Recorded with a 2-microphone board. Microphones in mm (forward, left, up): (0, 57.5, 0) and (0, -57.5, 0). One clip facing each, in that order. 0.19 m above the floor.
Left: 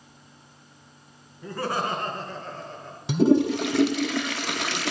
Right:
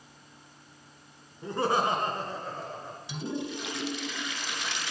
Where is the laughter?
25° right (ahead or behind), 2.5 m; by 3.0 s 5° right (ahead or behind), 3.5 m.